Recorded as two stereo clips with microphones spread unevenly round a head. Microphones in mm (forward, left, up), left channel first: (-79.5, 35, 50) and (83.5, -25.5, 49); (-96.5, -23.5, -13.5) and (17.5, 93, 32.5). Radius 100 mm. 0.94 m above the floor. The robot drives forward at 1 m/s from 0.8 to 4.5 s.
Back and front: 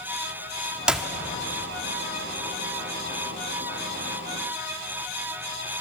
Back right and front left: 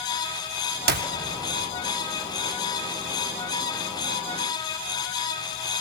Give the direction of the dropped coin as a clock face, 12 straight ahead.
I don't hear a dropped coin.